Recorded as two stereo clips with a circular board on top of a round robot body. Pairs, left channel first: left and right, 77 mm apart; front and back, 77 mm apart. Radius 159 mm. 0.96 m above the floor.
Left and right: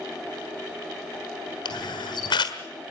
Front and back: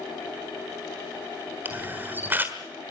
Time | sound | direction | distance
1.6 | a camera shutter | 115° left | 1.4 m